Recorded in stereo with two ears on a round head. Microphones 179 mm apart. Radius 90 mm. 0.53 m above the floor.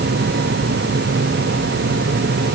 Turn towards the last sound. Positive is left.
No sound to turn to.